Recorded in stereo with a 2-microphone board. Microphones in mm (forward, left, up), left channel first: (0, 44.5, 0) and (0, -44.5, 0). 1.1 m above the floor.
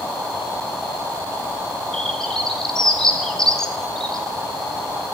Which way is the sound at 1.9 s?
5° left (ahead or behind).